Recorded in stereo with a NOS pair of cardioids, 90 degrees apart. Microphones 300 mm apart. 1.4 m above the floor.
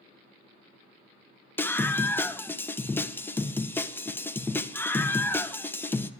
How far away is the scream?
About 1.1 m.